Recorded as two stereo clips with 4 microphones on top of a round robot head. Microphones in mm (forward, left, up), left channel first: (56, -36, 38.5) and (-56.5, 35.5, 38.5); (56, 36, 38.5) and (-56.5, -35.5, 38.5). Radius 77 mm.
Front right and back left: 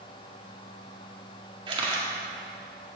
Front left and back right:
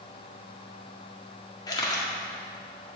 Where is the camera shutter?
95° left, 1.7 m.